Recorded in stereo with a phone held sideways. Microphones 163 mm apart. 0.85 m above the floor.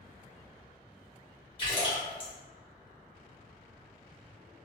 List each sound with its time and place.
1.6 s a splash: 35° left (ahead or behind), 1.1 m